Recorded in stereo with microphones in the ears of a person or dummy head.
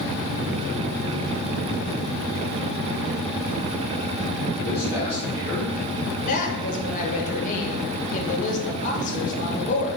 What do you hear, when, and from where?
4.6 s a man speaking: 45° left (ahead or behind), 1.6 m; by 6.2 s 15° right (ahead or behind), 0.8 m
6.3 s a woman speaking: 45° left (ahead or behind), 1.3 m